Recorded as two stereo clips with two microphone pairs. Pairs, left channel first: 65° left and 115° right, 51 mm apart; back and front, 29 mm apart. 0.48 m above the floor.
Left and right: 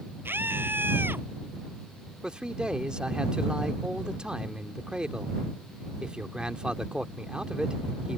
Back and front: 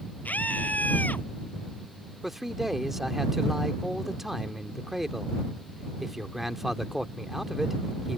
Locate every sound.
0.2 s a scream: 160° right
2.2 s a man speaking: 65° right